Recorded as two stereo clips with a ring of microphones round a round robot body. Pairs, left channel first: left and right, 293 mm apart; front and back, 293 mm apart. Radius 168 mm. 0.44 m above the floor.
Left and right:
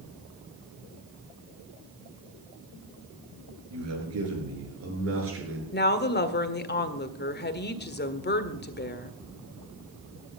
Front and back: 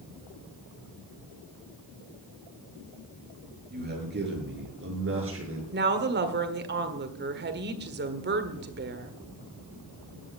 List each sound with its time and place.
3.7 s a man speaking: 120° right, 8.5 m; by 5.6 s 135° right, 8 m
5.7 s a woman speaking: 135° left, 1.7 m